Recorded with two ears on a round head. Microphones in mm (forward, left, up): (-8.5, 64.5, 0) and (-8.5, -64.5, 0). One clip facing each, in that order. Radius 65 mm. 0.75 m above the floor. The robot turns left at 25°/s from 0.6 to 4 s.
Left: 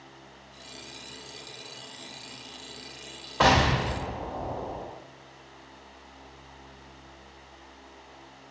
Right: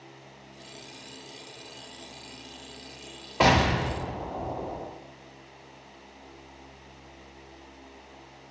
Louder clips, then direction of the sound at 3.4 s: Even; 15° right (ahead or behind).